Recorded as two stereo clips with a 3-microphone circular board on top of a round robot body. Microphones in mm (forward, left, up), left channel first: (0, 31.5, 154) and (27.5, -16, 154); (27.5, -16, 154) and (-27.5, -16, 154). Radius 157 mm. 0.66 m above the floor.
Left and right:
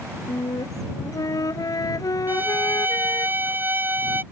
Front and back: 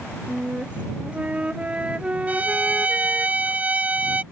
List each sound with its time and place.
0.3 s a flute: 110° left
2.3 s a violin: 120° right